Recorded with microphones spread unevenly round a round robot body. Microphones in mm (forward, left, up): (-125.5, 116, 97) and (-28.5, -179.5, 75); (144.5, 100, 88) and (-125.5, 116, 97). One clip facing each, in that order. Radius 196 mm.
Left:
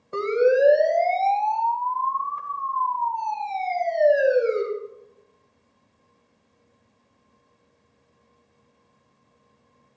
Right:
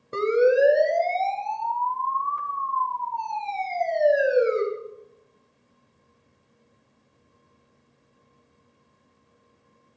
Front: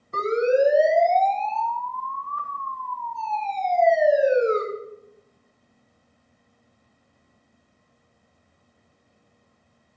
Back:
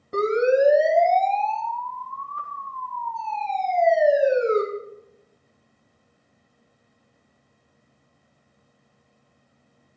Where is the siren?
140° right, 3 m; by 4.6 s 155° right, 6 m.